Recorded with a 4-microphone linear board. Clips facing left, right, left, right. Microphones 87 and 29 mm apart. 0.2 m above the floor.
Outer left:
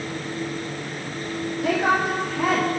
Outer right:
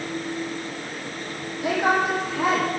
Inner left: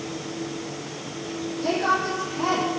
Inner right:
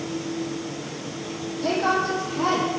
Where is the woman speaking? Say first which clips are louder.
Even, inner right 1 dB; 5° right (ahead or behind), 7.5 m.